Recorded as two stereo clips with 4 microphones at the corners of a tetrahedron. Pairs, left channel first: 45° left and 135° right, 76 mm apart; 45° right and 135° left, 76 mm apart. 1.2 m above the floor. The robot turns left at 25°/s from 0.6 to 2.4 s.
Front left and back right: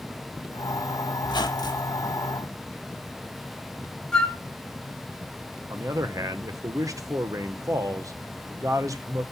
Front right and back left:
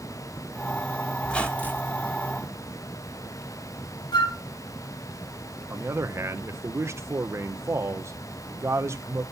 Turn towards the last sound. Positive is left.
turn(degrees=-175)